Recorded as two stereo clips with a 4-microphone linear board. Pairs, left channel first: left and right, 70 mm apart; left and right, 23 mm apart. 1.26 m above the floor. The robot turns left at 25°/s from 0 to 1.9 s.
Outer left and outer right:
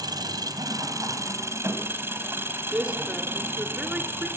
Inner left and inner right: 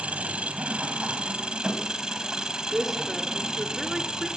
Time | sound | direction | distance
0.0 | an engine running | 95° right | 3 m
2.7 | a woman speaking | 20° right (ahead or behind) | 2.5 m